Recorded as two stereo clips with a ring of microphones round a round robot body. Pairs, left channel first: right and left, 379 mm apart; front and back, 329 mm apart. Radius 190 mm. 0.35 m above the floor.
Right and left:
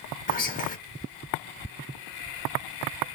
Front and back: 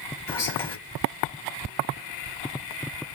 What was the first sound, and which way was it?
Whispering, 70° right.